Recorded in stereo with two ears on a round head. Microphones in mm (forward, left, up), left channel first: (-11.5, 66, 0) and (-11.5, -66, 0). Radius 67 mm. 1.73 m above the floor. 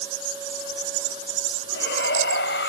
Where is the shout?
75° left (ahead or behind); by 2.7 s 85° left.